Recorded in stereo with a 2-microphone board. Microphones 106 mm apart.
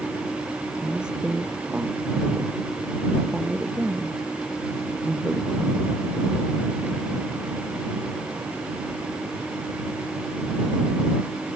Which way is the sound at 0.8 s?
5° right (ahead or behind).